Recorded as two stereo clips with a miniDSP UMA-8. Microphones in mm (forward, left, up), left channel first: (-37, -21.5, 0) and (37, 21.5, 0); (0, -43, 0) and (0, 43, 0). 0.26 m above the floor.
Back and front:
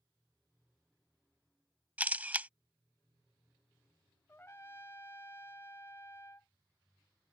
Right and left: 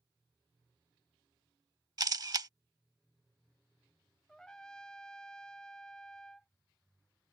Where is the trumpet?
160° right.